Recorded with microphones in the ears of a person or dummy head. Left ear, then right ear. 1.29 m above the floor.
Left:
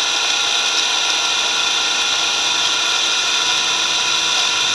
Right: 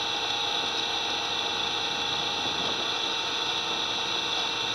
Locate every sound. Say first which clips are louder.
0.0 s an engine running: left 11 dB; 70° left (ahead or behind)